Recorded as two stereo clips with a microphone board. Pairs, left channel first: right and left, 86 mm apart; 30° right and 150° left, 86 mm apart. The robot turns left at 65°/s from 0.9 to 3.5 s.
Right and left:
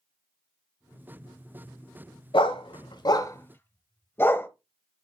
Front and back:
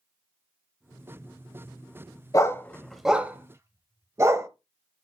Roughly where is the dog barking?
Right.